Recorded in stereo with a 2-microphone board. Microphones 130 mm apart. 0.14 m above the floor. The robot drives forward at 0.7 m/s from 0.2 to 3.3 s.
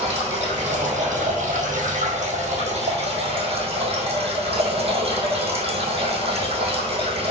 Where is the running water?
55° right (ahead or behind), 1.8 m; by 7.3 s 50° right (ahead or behind), 1.9 m.